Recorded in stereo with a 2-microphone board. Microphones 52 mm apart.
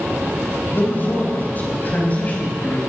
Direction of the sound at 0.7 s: 40° left (ahead or behind).